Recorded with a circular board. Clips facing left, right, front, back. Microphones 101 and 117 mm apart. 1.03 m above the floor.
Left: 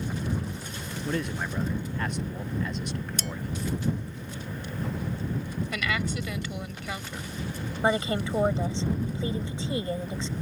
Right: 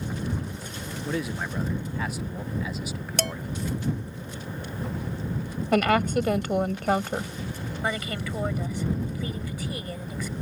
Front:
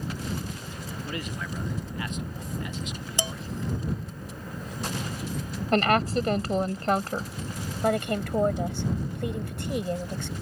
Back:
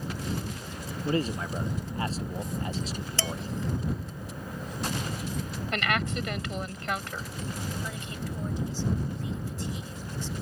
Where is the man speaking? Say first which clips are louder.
Even, back 8 dB; 175° right.